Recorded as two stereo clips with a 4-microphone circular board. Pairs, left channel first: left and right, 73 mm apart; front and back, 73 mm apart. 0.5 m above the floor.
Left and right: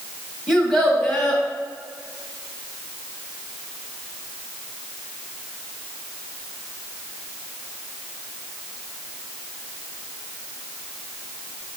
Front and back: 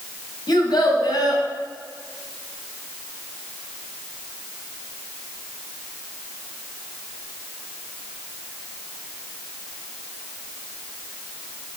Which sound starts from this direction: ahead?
A child speaking, at 0.5 s.